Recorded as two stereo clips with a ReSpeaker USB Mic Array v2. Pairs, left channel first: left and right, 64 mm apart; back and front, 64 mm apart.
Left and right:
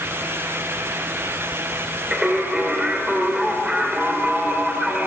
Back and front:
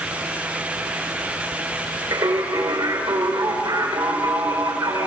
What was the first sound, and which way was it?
Singing, 15° right.